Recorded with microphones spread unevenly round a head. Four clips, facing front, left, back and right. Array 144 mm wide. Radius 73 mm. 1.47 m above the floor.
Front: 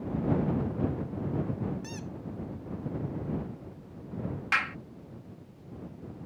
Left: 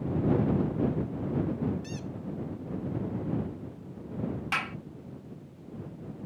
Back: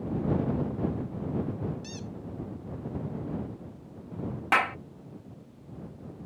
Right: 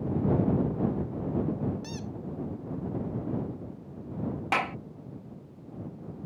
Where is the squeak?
45° right.